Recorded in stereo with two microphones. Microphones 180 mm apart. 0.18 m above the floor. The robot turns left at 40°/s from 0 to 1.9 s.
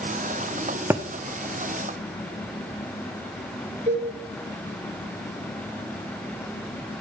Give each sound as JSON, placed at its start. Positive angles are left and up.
{"t": 0.9, "sound": "a thud", "side_deg": -15, "distance_m": 1.0}
{"t": 3.9, "sound": "a cowbell", "side_deg": -45, "distance_m": 3.0}